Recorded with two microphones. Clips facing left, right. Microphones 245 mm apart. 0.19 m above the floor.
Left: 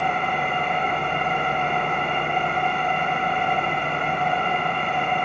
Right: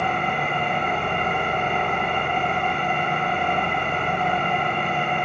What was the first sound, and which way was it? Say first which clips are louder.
An engine running: even; 55° right (ahead or behind).